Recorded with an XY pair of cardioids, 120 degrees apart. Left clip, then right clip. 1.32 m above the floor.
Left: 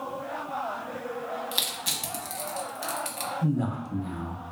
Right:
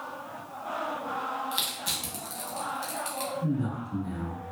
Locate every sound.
1.5 s crushing: 25° left, 0.8 m
3.4 s a man speaking: 70° left, 0.9 m